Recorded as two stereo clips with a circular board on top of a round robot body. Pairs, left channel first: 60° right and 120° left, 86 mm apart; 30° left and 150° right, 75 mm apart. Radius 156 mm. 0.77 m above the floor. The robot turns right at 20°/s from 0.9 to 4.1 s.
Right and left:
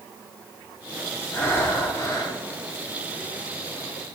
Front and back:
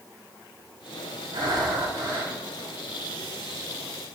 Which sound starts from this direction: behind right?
Breathing, at 1.3 s.